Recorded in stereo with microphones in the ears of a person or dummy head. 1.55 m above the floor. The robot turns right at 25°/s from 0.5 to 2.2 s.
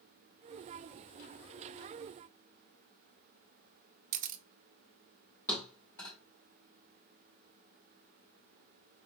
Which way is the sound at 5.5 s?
15° left (ahead or behind).